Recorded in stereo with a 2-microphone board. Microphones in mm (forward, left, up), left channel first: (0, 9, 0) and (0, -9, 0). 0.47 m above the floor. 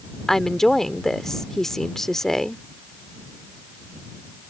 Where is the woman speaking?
25° left (ahead or behind).